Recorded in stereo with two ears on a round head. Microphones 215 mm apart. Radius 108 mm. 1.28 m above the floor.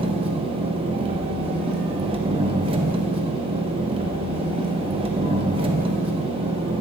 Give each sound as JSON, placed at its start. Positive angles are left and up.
{"t": 0.0, "sound": "an engine running", "side_deg": -25, "distance_m": 1.0}